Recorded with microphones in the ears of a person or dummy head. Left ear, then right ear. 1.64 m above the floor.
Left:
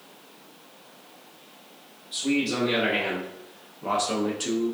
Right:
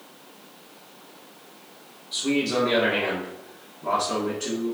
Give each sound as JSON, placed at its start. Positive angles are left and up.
{"t": 2.1, "sound": "a man speaking", "side_deg": -15, "distance_m": 1.1}